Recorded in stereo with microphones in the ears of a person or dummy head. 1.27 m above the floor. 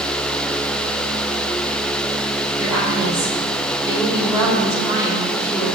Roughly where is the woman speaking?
Centre.